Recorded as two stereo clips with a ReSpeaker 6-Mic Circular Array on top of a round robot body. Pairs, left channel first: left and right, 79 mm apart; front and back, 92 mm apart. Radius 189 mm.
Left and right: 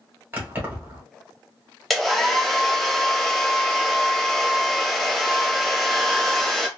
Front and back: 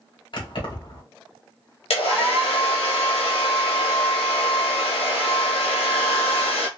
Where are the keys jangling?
25° right, 1.5 m.